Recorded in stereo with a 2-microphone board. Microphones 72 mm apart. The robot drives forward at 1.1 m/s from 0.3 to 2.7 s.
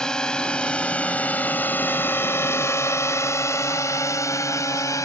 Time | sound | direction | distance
0.0 | a drone | 10° left (ahead or behind) | ?